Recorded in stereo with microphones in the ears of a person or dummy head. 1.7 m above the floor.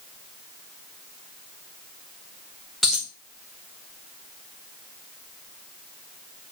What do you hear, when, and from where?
2.8 s a dropped coin: centre (ahead or behind), 1.0 m